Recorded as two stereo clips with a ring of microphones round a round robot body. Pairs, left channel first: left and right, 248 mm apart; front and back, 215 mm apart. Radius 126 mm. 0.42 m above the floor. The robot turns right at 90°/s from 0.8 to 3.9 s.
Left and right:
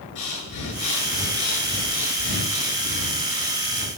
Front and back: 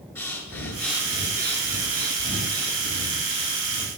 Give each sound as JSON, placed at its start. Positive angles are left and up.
{"t": 0.1, "sound": "breathing", "azimuth_deg": 80, "distance_m": 8.5}